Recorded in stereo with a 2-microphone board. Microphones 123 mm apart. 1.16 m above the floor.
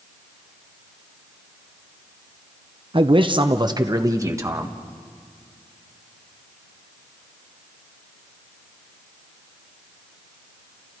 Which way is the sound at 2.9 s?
45° right (ahead or behind).